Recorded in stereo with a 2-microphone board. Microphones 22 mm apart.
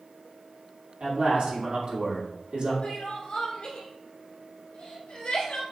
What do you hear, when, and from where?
1.0 s a man speaking: 60° right (ahead or behind), 1.8 m
2.8 s crying: 75° left (ahead or behind), 1.5 m